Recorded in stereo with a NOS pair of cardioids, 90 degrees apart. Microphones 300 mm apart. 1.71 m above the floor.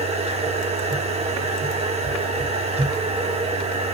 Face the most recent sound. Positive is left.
turn(degrees=-20)